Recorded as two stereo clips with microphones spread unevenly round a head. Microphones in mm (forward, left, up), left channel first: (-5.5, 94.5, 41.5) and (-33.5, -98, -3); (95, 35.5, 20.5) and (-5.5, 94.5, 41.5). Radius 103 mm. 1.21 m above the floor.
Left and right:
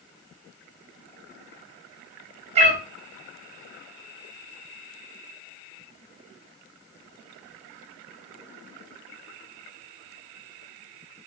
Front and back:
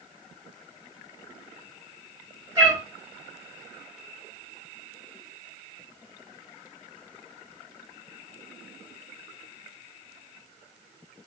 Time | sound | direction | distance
2.5 | a cat meowing | 160° right | 1.1 m